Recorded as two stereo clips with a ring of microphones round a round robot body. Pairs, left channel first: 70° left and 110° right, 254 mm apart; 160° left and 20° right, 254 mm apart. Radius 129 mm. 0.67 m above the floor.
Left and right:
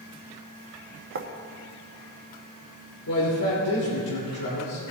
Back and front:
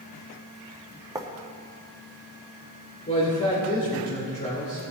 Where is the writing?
95° right, 1.1 m.